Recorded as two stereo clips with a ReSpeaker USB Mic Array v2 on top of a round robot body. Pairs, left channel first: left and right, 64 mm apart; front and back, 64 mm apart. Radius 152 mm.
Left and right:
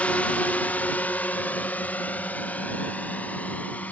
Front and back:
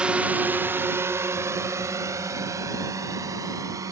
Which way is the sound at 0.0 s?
130° left.